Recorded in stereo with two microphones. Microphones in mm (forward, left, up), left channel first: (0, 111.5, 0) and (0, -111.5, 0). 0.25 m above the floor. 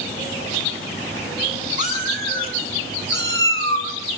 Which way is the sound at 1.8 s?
35° right (ahead or behind).